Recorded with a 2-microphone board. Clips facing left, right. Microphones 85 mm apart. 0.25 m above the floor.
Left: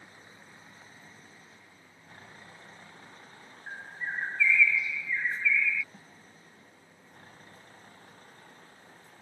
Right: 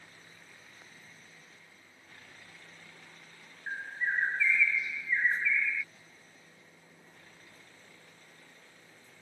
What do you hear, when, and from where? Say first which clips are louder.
0.0 s a vehicle: left 3 dB; 25° left (ahead or behind); by 9.2 s 45° left (ahead or behind)
3.7 s a bird: right 4 dB; 30° right (ahead or behind)
5.9 s a snare drum: left 5 dB; 45° left (ahead or behind)